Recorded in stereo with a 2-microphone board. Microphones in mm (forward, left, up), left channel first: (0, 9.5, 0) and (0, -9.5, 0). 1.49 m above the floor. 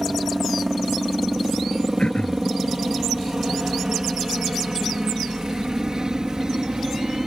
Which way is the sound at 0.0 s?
15° right (ahead or behind).